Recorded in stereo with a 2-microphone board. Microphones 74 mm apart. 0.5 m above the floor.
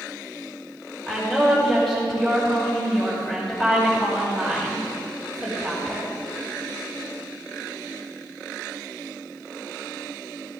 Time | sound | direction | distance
1.1 | a woman speaking | 5° left (ahead or behind) | 2 m